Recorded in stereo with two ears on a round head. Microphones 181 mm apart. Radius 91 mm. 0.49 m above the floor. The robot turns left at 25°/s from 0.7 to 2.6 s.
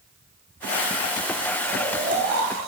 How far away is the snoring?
About 2 m.